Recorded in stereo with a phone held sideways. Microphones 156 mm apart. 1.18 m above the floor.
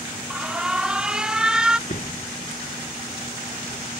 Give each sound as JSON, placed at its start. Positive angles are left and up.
{"t": 0.3, "sound": "an alarm", "side_deg": -5}
{"t": 1.9, "sound": "a door slam", "side_deg": 60}